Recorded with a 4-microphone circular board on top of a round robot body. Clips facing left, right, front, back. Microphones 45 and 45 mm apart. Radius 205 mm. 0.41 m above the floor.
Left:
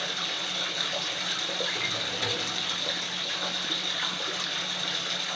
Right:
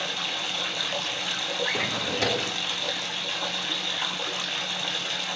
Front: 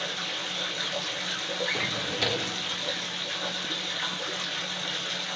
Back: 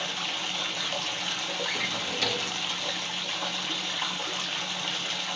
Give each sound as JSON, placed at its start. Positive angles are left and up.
{"t": 0.0, "sound": "running water", "azimuth_deg": -130, "distance_m": 1.7}
{"t": 1.6, "sound": "a drawer", "azimuth_deg": -80, "distance_m": 1.0}